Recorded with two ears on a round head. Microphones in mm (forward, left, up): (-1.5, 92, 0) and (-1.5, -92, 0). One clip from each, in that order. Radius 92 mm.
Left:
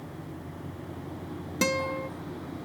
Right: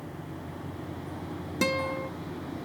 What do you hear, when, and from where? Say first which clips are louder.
1.6 s a guitar: left 1 dB; 10° left (ahead or behind)